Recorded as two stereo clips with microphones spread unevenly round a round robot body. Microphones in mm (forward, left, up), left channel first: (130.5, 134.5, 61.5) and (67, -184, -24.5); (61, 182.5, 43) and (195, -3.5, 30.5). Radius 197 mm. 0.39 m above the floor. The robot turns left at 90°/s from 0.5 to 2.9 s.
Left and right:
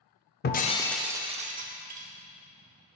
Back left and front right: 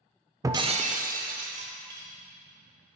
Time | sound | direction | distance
0.4 | breaking glass | 10° left | 0.6 m